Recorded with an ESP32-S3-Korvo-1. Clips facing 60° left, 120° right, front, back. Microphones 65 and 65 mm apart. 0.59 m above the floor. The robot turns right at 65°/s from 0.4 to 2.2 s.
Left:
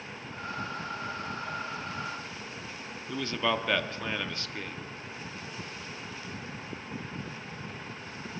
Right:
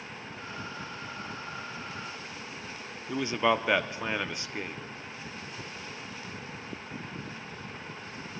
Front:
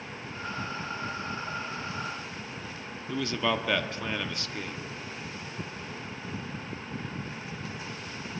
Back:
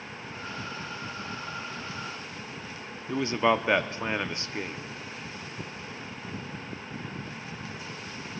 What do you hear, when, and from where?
3.1 s a man speaking: 175° right, 0.6 m